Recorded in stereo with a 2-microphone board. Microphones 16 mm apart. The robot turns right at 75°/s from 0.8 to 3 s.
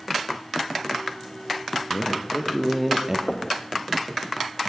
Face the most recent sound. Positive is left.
turn(degrees=60)  # may be behind; listen again after turning